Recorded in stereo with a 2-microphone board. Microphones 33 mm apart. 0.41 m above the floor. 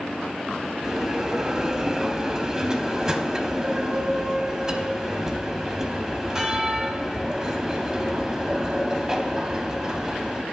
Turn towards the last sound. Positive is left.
turn(degrees=-15)  # may be behind; listen again after turning